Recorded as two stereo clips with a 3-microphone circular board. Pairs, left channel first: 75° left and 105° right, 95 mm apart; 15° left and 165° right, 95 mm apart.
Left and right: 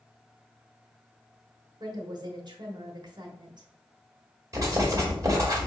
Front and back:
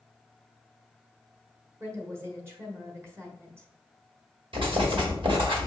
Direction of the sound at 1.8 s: 110° right.